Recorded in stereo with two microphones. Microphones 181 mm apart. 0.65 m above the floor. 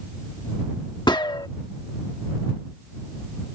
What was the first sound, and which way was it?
A gunshot, 25° left (ahead or behind).